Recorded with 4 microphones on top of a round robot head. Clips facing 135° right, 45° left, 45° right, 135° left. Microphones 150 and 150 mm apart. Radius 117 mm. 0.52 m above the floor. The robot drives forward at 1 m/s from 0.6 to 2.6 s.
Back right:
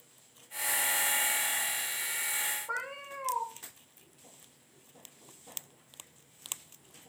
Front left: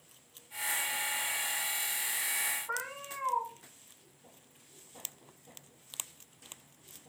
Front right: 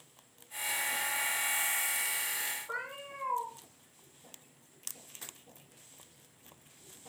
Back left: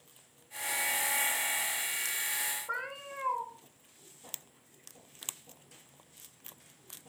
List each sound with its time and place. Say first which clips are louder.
2.7 s a cat meowing: back right 1 dB, even; 165° left, 3 m